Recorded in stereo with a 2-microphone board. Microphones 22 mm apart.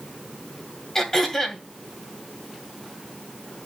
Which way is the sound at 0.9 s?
20° left (ahead or behind).